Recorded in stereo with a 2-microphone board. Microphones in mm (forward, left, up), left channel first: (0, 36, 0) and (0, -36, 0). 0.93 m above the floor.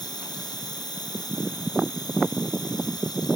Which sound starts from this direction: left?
An insect, at 0.0 s.